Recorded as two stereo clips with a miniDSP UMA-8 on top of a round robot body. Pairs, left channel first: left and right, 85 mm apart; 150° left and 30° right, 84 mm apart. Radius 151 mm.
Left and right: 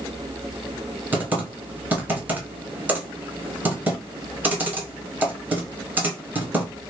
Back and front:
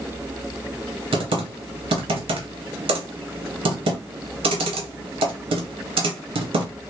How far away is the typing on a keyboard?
About 0.7 m.